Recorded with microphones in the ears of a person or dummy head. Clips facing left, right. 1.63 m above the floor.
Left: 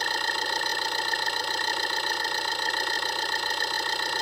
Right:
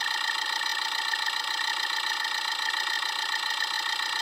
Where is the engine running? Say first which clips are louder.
Left 5 dB; 35° left (ahead or behind).